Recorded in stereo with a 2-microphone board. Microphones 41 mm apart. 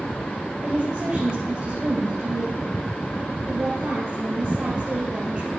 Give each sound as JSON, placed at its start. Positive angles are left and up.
{"t": 0.6, "sound": "a woman speaking", "side_deg": -40, "distance_m": 2.5}